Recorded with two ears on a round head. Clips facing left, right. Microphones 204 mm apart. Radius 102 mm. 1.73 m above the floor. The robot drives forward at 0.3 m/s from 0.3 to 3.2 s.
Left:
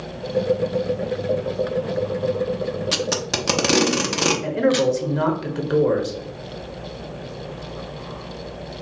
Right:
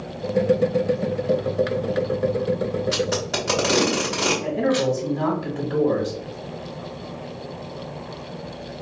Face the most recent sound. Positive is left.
turn(degrees=75)  # may be behind; listen again after turning